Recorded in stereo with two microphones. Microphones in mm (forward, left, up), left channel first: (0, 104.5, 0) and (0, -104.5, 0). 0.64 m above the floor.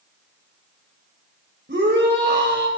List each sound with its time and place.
1.7 s a shout: 55° right (ahead or behind), 3.5 m